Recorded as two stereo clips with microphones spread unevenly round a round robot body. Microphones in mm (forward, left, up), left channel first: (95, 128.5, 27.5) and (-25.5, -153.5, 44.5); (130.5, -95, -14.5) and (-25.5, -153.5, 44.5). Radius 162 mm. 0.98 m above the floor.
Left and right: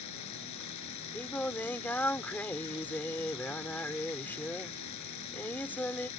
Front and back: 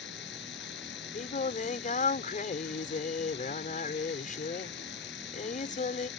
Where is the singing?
15° right.